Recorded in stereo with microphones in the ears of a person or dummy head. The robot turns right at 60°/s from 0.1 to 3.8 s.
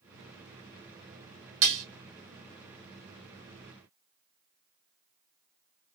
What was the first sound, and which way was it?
Dishes clattering, 75° right (ahead or behind).